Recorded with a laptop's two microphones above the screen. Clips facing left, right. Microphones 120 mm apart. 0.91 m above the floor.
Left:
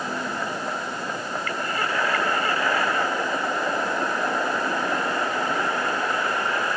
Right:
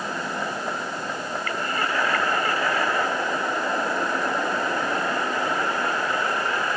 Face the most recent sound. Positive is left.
No sound to turn to.